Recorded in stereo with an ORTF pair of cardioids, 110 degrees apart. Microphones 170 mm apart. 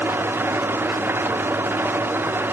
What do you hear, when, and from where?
0.0 s an engine running: 10° right, 1.0 m